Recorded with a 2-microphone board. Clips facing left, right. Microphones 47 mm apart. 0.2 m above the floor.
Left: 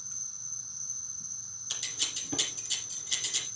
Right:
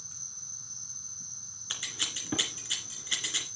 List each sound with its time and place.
0.0 s an insect: 15° left (ahead or behind), 4 m
1.7 s scissors: 35° right (ahead or behind), 2.5 m